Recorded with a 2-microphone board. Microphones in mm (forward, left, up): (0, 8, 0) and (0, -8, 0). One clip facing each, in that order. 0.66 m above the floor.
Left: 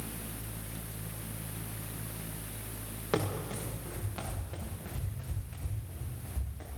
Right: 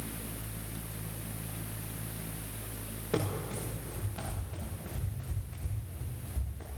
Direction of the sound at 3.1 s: 60° left (ahead or behind).